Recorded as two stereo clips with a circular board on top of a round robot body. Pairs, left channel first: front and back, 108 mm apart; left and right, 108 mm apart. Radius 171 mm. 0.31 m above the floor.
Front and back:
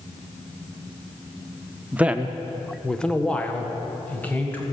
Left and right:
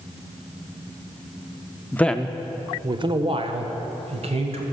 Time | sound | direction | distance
1.9 | a man speaking | 130° left | 0.9 m